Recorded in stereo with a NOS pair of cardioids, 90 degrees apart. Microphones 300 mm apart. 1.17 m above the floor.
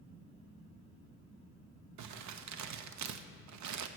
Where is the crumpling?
70° right, 0.9 m.